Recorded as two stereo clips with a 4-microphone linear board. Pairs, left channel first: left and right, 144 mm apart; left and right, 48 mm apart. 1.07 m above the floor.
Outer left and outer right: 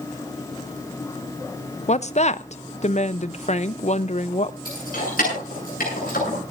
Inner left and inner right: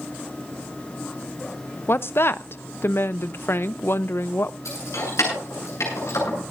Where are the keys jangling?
90° left, 8.5 m.